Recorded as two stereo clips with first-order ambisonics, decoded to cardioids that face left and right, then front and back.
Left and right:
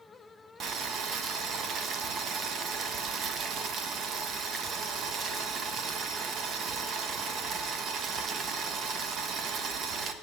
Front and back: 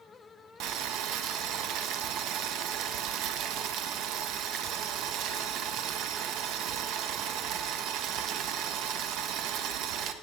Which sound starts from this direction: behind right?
Boiling, at 0.6 s.